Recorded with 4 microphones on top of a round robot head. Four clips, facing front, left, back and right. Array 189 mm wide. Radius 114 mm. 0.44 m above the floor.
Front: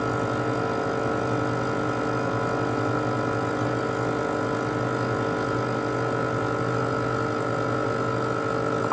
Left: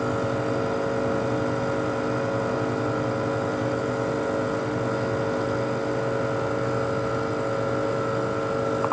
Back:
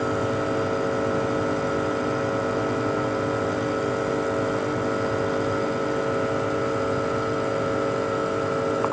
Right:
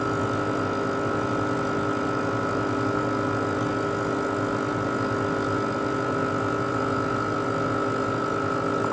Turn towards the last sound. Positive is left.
No sound to turn to.